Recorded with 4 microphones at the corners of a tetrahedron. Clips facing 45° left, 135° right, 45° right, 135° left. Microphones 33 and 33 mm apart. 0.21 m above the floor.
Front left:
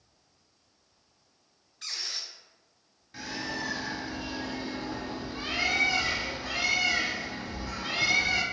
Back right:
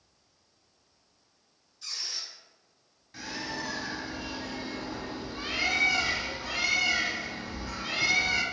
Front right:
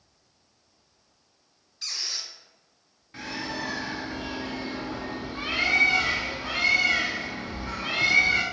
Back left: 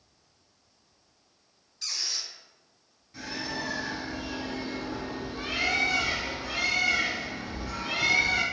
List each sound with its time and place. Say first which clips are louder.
1.8 s a squeak: front left 1 dB, front right 1 dB; 30° left, 0.8 m
3.1 s a bird: front left 1 dB, front right 2 dB; 35° right, 0.6 m